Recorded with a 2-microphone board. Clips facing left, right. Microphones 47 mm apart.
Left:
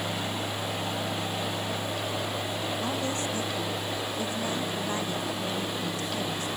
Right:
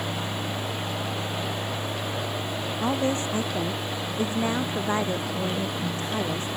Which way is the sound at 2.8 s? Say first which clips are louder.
Right 9 dB; 35° right (ahead or behind).